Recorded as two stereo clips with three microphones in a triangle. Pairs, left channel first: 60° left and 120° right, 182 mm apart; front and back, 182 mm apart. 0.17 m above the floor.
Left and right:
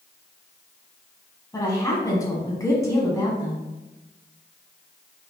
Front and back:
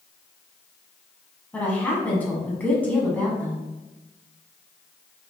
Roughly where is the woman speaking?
Ahead left.